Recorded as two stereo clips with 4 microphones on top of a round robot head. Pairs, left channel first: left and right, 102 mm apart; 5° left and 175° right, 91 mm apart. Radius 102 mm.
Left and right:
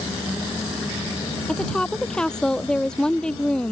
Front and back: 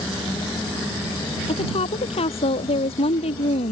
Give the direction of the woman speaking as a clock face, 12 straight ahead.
12 o'clock.